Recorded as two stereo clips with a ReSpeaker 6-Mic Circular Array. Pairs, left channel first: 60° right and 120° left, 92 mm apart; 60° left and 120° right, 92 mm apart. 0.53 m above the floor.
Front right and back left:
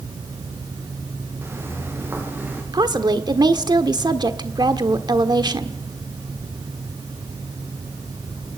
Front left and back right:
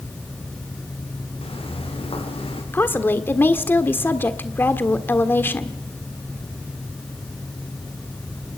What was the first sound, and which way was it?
Footsteps, 55° left.